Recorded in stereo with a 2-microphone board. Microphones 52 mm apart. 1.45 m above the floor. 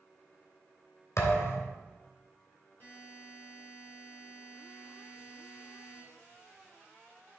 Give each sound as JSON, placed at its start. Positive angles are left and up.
{"t": 1.2, "sound": "a thud", "side_deg": 70, "distance_m": 2.5}
{"t": 2.8, "sound": "a buzzer", "side_deg": 35, "distance_m": 4.0}